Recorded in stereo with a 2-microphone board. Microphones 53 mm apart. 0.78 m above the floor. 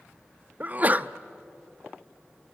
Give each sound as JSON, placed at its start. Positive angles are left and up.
{"t": 0.6, "sound": "a sneeze", "side_deg": -35, "distance_m": 0.5}